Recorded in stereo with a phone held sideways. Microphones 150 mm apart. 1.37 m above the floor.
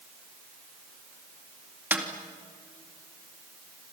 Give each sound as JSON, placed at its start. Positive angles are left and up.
{"t": 1.9, "sound": "a snare drum", "side_deg": -15, "distance_m": 2.5}